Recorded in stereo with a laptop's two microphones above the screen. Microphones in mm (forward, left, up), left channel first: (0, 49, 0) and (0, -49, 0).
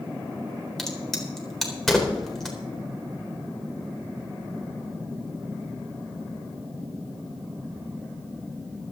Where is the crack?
5° left (ahead or behind), 4 m.